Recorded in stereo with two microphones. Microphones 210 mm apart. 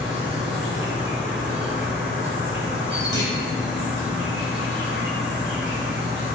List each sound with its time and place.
0.0 s an insect: 60° right (ahead or behind), 1.3 m
3.1 s a clunk: 20° left (ahead or behind), 0.9 m